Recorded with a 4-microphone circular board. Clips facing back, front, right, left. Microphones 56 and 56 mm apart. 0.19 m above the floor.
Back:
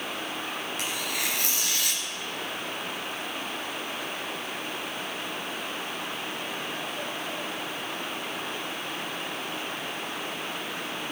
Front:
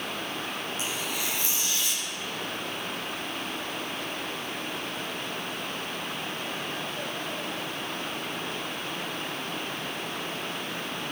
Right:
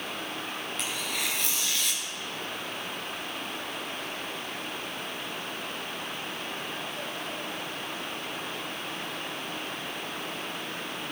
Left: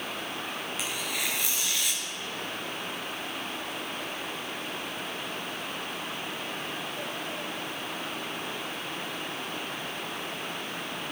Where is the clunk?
I don't hear a clunk.